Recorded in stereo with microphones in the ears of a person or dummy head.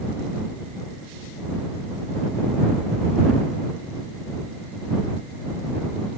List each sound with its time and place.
Only background noise.